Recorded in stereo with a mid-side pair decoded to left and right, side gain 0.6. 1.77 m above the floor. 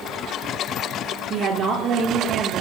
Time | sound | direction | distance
1.3 | a woman speaking | 55° right | 4.5 m